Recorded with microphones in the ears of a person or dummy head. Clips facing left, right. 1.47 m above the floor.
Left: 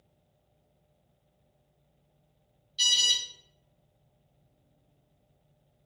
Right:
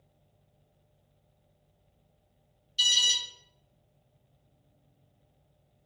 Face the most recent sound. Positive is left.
turn(degrees=-40)  # may be behind; listen again after turning